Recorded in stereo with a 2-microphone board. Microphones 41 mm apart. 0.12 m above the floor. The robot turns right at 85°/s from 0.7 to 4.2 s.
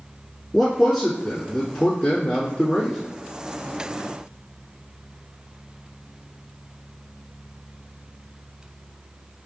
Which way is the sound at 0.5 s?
15° right (ahead or behind).